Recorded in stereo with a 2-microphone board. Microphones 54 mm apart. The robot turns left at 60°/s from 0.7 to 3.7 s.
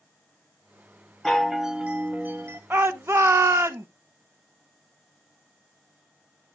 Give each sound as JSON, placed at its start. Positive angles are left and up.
{"t": 1.2, "sound": "a chime", "azimuth_deg": 15, "distance_m": 1.0}
{"t": 2.7, "sound": "a shout", "azimuth_deg": -45, "distance_m": 0.7}